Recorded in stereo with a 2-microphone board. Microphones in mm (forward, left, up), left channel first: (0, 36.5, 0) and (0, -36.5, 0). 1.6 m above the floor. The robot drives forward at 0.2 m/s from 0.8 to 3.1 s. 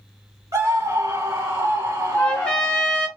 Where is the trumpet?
15° left (ahead or behind), 1.1 m.